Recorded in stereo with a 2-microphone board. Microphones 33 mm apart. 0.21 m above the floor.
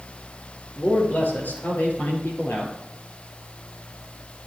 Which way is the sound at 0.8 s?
65° left (ahead or behind).